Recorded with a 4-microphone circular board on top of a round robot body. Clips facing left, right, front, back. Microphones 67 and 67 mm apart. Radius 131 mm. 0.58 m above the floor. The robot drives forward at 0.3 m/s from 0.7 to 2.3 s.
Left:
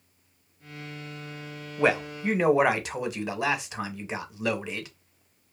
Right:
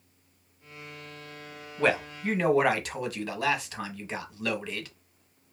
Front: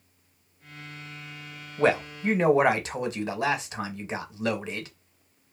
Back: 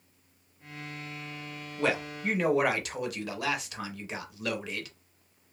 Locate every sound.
1.8 s a man speaking: 20° left, 0.9 m; by 4.9 s 30° left, 0.8 m